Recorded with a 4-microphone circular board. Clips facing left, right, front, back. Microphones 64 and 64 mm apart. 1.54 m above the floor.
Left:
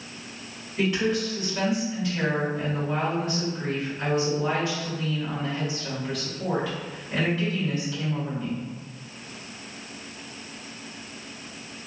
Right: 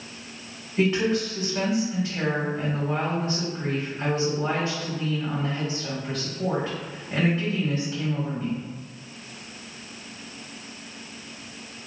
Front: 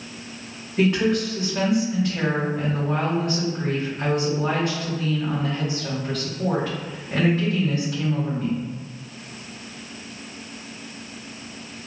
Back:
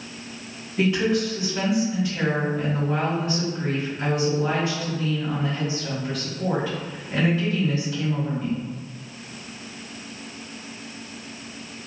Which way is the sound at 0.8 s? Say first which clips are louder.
Right 2 dB, front 1 dB; 35° right.